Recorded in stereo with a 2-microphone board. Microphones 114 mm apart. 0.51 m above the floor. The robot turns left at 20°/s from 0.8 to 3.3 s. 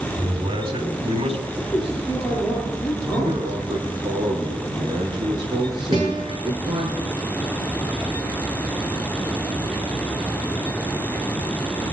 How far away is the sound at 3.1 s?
About 4 m.